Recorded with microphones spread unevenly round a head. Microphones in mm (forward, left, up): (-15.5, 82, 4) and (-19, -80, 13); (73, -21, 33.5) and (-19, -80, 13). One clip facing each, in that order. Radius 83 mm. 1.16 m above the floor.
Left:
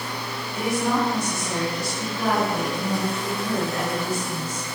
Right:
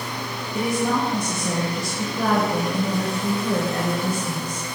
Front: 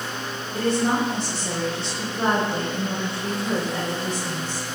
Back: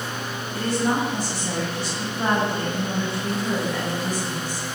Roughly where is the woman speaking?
Ahead right.